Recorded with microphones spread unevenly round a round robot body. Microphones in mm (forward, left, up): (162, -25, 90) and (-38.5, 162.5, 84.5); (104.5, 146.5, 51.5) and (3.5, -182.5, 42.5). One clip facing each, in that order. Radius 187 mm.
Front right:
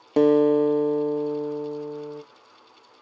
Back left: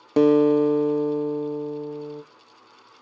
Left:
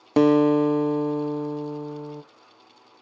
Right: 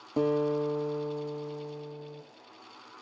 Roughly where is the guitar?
Ahead left.